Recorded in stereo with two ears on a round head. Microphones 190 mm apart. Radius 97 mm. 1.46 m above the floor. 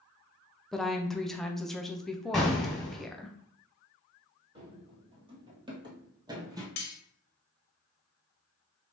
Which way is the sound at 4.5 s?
25° right (ahead or behind).